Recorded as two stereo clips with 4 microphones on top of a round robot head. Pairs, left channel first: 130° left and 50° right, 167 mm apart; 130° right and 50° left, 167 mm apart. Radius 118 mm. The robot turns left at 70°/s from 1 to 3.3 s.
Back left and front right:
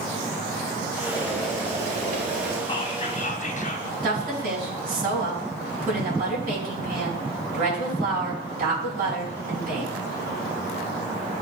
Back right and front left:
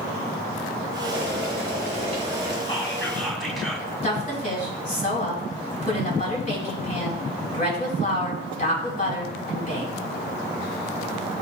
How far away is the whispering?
About 1.6 m.